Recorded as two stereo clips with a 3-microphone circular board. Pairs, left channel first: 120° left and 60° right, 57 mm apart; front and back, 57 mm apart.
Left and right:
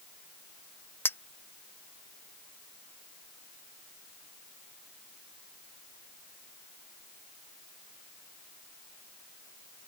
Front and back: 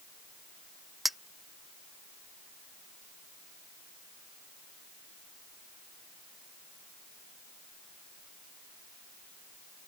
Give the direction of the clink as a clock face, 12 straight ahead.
9 o'clock.